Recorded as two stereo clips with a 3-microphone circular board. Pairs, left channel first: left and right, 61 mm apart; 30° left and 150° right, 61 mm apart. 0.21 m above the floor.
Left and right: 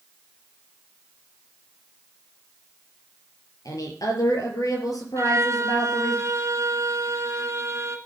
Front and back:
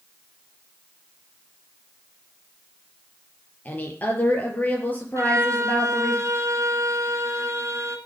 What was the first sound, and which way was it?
A woman speaking, 90° left.